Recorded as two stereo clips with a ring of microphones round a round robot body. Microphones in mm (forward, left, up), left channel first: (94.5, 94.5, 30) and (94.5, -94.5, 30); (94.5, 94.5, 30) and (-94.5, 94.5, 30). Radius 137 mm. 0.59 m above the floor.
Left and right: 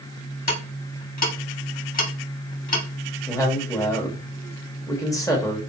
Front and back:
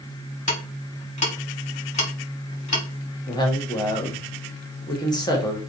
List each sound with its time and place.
0.5 s ticking: 50° left, 1.4 m
3.3 s a woman speaking: 40° left, 1.0 m